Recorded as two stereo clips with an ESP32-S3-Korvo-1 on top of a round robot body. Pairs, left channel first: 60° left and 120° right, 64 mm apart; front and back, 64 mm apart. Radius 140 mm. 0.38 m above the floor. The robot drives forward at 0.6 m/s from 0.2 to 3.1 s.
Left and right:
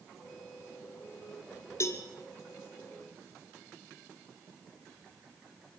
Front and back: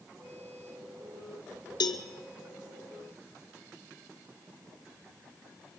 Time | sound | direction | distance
1.8 | a cowbell | 10° left | 2 m